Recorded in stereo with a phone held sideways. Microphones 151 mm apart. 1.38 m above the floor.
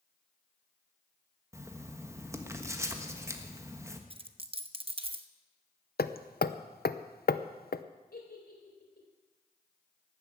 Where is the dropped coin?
35° right (ahead or behind), 0.7 m.